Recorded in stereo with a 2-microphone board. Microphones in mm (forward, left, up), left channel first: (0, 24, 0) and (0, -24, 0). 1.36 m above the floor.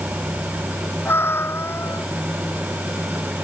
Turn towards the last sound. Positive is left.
turn(degrees=60)  # may be behind; listen again after turning